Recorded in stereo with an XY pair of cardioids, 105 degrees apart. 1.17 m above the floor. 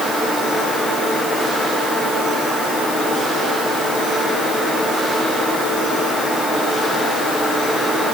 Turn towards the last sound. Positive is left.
No sound to turn to.